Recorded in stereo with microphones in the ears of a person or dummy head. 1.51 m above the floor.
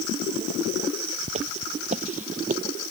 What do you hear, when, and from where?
1.3 s footsteps: 35° right (ahead or behind); by 2.6 s 45° right (ahead or behind)